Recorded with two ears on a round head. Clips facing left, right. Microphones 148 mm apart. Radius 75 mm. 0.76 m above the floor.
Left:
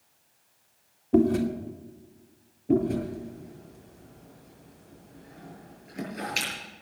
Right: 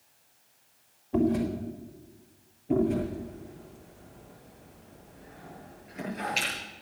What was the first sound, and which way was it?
Chewing, 55° left (ahead or behind).